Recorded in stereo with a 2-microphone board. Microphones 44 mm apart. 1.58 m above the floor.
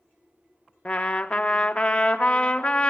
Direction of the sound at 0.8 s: 20° left (ahead or behind).